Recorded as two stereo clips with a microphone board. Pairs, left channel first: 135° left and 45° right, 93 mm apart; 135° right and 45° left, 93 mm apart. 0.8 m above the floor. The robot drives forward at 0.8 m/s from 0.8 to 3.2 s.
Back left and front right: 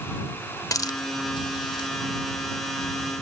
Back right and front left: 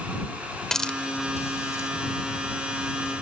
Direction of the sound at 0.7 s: 145° left.